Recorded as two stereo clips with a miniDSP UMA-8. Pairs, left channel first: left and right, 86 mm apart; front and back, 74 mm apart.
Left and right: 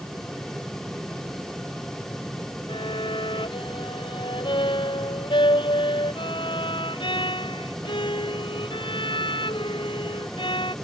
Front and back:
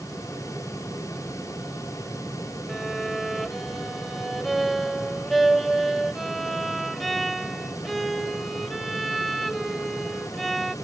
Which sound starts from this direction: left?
A violin, at 2.7 s.